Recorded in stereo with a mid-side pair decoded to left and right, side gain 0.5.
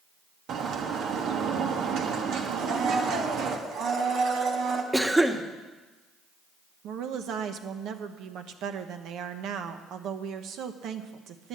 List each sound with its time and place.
0.5 s a bird: 65° right, 1.3 m
2.6 s a blender: 65° right, 1.8 m
4.9 s a cough: 10° right, 1.3 m
6.8 s a woman speaking: 70° right, 1.0 m